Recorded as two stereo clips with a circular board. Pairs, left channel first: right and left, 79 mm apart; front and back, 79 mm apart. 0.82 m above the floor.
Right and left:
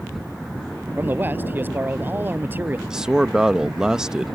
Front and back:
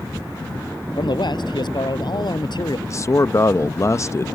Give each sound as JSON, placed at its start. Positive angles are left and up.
{"t": 1.0, "sound": "a man speaking", "azimuth_deg": 25}
{"t": 2.9, "sound": "a man speaking", "azimuth_deg": 15}